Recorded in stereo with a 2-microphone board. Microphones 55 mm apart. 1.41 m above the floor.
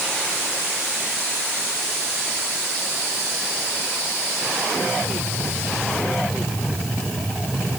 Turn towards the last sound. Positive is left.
No sound to turn to.